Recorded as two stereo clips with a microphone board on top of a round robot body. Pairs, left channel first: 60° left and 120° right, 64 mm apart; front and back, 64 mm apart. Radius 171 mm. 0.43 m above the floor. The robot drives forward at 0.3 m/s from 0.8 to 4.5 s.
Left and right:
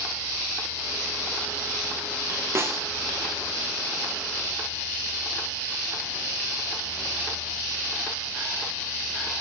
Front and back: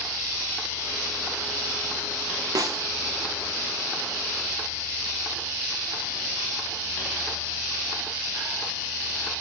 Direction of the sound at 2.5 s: 165° right.